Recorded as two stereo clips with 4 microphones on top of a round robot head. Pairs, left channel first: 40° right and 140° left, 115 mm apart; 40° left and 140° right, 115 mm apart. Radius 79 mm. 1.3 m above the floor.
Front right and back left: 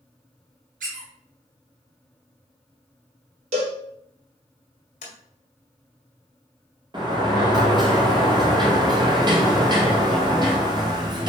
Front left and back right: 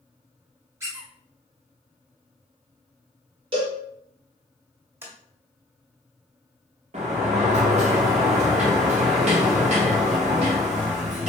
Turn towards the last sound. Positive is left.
turn(degrees=-165)